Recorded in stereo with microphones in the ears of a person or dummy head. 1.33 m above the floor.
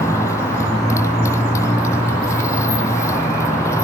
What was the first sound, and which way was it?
A motorcycle, 15° left (ahead or behind).